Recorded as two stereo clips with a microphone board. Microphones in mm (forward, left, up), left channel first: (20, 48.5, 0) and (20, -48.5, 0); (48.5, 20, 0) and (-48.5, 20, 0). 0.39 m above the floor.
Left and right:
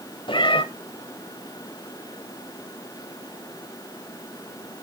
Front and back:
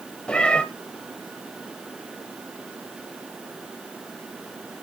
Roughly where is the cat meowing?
Left.